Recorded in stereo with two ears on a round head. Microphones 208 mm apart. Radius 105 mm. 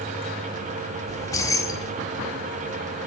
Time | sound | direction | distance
1.1 | keys jangling | 15° left (ahead or behind) | 1.2 m